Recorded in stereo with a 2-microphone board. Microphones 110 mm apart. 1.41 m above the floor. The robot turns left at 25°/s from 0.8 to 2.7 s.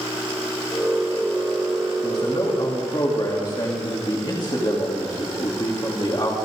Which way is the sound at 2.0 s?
60° left (ahead or behind).